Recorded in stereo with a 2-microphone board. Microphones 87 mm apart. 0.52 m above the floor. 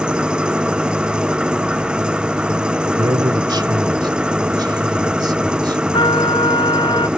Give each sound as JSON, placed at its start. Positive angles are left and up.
{"t": 0.0, "sound": "an engine running", "side_deg": -10}
{"t": 3.0, "sound": "a man speaking", "side_deg": -55}
{"t": 5.9, "sound": "a trumpet", "side_deg": 70}